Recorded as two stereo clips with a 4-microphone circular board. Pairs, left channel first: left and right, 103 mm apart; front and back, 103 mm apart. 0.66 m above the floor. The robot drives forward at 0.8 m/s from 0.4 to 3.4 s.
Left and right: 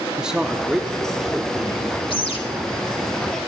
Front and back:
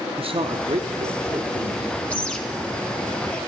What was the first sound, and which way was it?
A man speaking, 170° right.